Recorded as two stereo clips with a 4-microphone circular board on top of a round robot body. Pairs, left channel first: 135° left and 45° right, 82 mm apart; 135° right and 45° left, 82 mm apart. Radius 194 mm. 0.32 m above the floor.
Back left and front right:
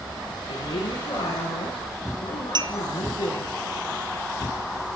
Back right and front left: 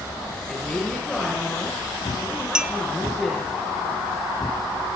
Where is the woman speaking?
145° left, 8 m.